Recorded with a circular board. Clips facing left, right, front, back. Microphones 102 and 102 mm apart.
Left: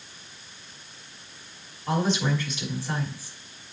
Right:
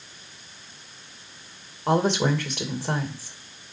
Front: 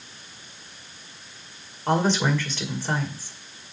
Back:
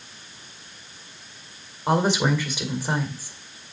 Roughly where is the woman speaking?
Right.